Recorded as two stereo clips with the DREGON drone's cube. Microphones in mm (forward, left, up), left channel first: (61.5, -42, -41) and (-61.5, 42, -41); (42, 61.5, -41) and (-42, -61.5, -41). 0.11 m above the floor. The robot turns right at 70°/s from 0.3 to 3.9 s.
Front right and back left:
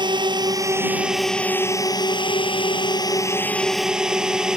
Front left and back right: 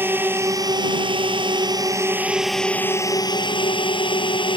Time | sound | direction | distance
0.0 | a drone | 170° left | ?